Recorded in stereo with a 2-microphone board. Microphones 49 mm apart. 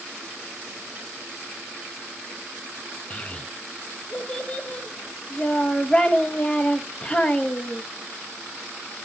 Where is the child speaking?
25° left (ahead or behind), 0.8 m.